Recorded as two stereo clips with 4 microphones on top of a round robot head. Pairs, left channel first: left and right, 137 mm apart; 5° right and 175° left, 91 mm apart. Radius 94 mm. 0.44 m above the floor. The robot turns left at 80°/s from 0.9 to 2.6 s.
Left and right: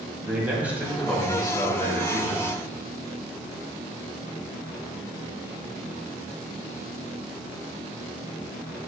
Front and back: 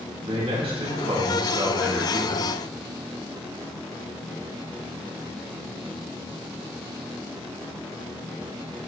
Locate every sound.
0.2 s a man speaking: 170° right, 3 m; by 2.5 s 65° left, 3 m